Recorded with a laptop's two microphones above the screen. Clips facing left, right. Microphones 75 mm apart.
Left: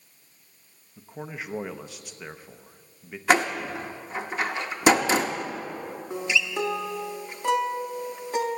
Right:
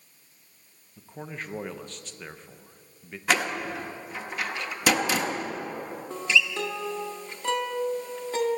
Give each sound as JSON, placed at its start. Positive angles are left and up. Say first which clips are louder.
{"t": 1.0, "sound": "a man speaking", "louder": "left 1 dB", "side_deg": 5, "distance_m": 0.5}
{"t": 3.3, "sound": "a door slam", "louder": "left 4 dB", "side_deg": 30, "distance_m": 0.8}
{"t": 6.1, "sound": "a guitar", "louder": "right 1 dB", "side_deg": 15, "distance_m": 0.8}